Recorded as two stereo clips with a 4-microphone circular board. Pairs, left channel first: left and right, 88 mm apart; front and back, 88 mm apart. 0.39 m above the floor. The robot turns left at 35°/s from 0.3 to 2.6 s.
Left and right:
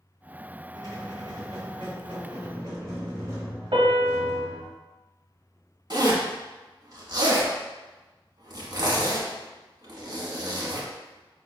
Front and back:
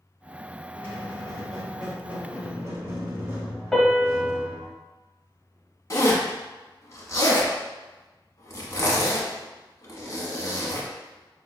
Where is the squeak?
60° right, 1.1 m; by 4.7 s 125° right, 1.1 m.